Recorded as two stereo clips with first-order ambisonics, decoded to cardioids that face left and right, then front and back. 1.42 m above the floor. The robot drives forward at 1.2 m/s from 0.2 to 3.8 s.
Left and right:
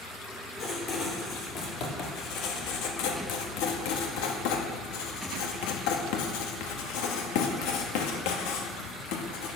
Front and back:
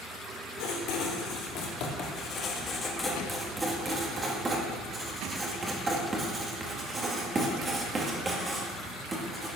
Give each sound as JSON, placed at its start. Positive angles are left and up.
{"t": 0.6, "sound": "writing", "azimuth_deg": 30, "distance_m": 4.0}